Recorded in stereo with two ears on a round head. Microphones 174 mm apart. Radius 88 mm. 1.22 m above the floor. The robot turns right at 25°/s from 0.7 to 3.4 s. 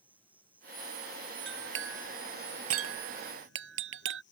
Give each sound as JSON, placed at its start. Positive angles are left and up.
{"t": 0.0, "sound": "an insect", "azimuth_deg": -10}
{"t": 1.5, "sound": "a clink", "side_deg": -70}